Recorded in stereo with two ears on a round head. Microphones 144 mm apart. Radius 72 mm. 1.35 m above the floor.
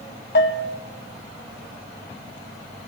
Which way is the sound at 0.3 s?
70° left (ahead or behind).